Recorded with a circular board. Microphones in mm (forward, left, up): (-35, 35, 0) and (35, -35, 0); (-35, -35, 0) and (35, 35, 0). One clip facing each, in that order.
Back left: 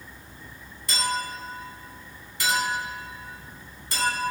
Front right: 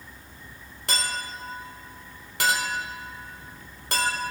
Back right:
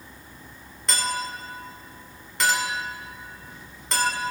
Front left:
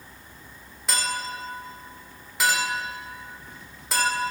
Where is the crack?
No crack in this recording.